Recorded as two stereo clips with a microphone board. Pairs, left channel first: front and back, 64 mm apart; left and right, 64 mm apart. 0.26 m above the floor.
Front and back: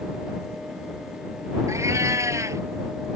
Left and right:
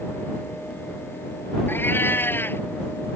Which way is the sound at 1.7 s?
145° left.